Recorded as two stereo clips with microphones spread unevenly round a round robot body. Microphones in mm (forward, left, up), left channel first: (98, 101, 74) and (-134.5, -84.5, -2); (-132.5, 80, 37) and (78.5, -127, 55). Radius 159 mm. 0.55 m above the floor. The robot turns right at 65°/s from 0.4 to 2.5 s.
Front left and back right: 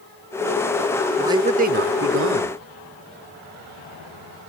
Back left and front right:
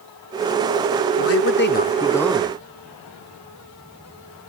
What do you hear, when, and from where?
1.2 s a man speaking: 145° left; by 2.6 s 125° right